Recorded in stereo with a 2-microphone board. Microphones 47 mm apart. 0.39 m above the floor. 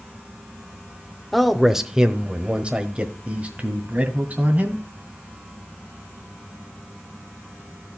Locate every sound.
1.3 s a man speaking: centre (ahead or behind), 0.8 m; by 4.8 s 35° right (ahead or behind), 2.5 m